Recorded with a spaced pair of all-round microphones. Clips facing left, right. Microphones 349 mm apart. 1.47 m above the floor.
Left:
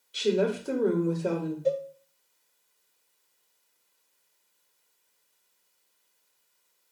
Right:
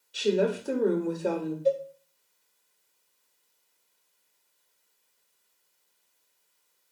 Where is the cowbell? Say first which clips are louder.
Right 2 dB; 60° left (ahead or behind), 0.9 m.